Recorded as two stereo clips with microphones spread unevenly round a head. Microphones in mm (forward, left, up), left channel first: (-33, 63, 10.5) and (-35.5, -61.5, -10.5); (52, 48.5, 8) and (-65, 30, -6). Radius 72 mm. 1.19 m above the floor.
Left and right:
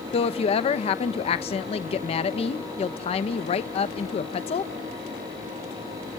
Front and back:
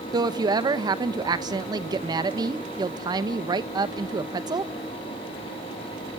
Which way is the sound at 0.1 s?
130° left.